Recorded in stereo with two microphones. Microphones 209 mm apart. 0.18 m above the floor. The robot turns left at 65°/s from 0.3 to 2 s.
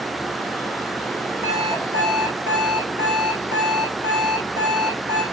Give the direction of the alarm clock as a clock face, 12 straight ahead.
7 o'clock.